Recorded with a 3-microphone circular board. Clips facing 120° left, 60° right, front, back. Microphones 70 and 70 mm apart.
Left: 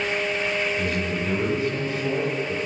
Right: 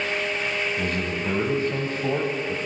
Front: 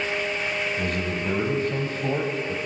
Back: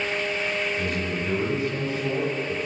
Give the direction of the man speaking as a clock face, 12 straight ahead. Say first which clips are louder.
Left 1 dB, even; 1 o'clock.